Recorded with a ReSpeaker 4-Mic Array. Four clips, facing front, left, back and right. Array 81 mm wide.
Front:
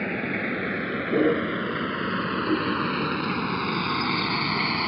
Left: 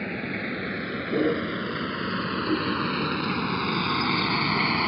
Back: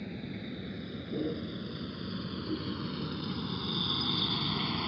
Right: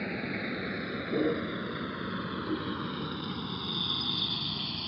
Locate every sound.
0.0 s a vehicle: 10° left; by 4.9 s 60° left